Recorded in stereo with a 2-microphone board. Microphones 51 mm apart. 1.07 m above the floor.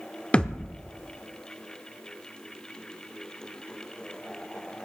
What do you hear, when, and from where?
0.3 s a thud: 20° left (ahead or behind), 0.7 m